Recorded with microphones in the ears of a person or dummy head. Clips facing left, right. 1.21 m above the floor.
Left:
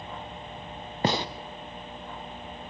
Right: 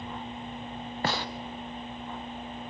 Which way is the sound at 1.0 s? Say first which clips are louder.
Left 5 dB; 20° left (ahead or behind).